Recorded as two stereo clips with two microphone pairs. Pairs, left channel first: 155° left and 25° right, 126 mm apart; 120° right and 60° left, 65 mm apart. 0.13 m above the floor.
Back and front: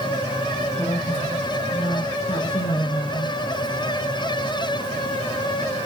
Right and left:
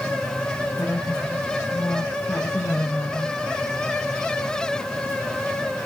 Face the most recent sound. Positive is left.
turn(degrees=-175)